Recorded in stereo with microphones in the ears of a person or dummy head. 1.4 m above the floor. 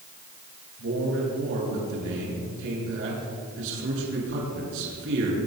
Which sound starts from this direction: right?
A man speaking, at 0.8 s.